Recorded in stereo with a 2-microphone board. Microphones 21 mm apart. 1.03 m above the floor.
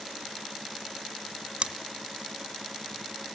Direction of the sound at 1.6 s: 50° right (ahead or behind).